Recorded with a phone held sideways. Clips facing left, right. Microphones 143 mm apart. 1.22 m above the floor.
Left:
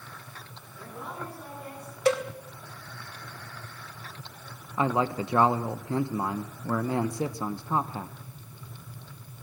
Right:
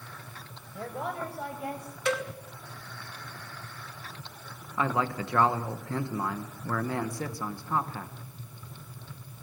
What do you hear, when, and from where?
0.7 s a woman speaking: 65° right (ahead or behind), 5.5 m; by 1.9 s 75° right (ahead or behind), 6.5 m
2.0 s a cowbell: 35° left (ahead or behind), 1.6 m
4.8 s a man speaking: 20° left (ahead or behind), 0.9 m